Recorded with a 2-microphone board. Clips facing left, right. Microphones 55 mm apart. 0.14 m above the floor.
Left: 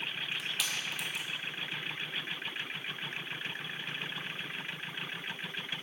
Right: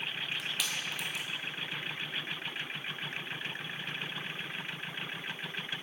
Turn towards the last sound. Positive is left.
turn(degrees=0)  # may be behind; listen again after turning